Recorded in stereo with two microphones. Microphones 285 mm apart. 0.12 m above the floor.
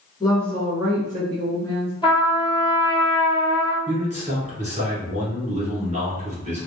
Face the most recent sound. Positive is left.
turn(degrees=-25)  # may be behind; listen again after turning